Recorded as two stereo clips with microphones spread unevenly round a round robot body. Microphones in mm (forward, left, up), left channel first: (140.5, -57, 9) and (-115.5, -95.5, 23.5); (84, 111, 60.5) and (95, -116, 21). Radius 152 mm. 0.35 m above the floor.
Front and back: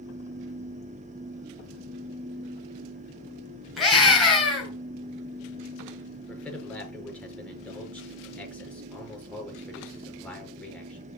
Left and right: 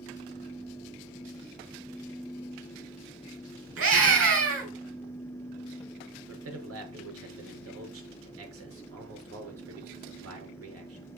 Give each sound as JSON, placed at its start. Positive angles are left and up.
{"t": 3.8, "sound": "a scream", "azimuth_deg": -80, "distance_m": 5.5}
{"t": 6.3, "sound": "a man speaking", "azimuth_deg": -75, "distance_m": 5.5}